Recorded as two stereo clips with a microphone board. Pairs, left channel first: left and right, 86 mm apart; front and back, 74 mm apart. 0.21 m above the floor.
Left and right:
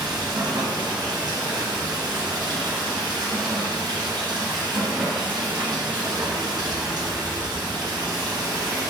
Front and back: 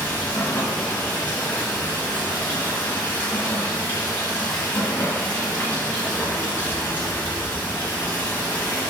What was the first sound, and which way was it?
Running water, 65° right.